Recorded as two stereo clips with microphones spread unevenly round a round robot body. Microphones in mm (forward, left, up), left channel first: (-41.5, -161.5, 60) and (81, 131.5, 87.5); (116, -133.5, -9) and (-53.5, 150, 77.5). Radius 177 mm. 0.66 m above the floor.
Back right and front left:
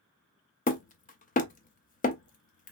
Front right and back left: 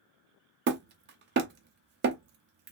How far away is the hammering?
About 0.5 m.